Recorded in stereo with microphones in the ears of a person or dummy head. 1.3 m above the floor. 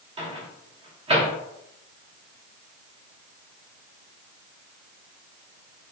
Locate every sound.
0.2 s a microwave: 40° right (ahead or behind), 1.1 m